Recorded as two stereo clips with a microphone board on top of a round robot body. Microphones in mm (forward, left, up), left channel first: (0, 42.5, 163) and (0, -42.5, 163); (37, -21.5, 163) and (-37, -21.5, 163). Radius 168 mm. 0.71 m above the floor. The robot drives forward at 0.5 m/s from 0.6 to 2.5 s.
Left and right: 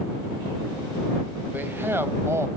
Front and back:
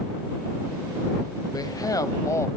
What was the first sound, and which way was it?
A man speaking, 25° right.